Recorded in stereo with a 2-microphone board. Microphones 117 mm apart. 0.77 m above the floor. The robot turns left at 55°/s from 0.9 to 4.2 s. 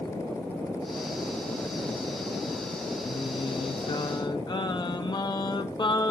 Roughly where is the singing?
Behind left.